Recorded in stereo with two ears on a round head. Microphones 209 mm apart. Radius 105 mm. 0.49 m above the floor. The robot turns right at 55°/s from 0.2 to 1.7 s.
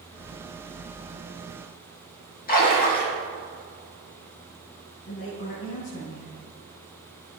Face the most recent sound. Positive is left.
turn(degrees=70)  # may be behind; listen again after turning